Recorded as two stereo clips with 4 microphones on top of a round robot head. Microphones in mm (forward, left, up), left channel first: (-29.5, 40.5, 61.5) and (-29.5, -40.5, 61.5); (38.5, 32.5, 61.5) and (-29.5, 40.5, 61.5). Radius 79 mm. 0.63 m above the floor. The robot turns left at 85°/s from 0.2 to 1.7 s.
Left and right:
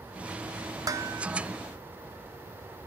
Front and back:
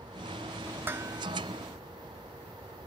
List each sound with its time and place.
0.9 s dishes clattering: 125° right, 1.0 m; by 1.4 s 175° right, 1.0 m